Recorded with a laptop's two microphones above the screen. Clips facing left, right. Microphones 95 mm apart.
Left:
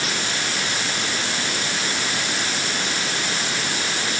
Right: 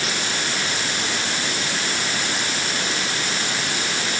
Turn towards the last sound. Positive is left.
No sound to turn to.